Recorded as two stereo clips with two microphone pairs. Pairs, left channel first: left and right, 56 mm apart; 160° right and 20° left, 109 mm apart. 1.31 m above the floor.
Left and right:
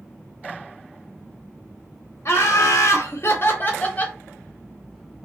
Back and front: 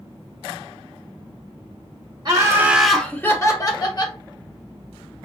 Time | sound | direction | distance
2.2 | laughter | 70° left | 0.7 m